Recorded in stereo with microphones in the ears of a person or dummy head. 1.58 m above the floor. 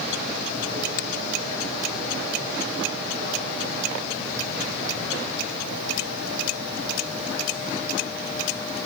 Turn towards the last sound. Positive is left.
turn(degrees=75)  # may be behind; listen again after turning